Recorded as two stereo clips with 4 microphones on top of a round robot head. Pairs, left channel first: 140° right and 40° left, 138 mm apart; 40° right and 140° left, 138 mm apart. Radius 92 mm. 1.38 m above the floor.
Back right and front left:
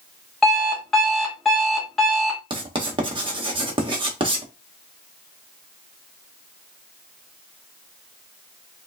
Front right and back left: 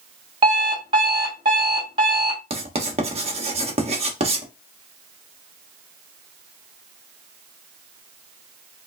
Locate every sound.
0.4 s an alarm clock: 135° left, 0.9 m
2.5 s writing: 95° left, 1.0 m